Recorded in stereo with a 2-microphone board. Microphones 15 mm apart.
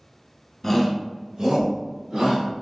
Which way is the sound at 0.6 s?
20° left (ahead or behind).